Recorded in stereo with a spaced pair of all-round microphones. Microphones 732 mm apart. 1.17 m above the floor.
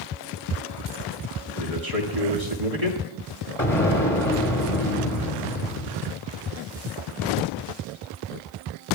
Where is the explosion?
25° left (ahead or behind), 2 m.